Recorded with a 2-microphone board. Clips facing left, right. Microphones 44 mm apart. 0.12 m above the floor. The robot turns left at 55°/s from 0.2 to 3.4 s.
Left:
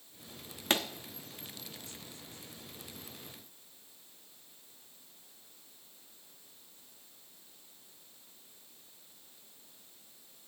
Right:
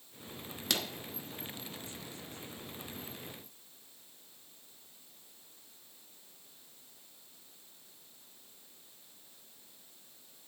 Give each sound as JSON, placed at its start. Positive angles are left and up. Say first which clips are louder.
{"t": 0.7, "sound": "a pop", "louder": "left 4 dB", "side_deg": 35, "distance_m": 0.8}